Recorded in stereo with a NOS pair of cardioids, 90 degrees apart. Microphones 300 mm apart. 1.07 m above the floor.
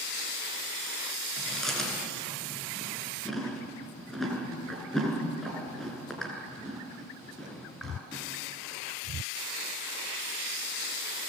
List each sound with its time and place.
1.4 s chewing: straight ahead, 8.5 m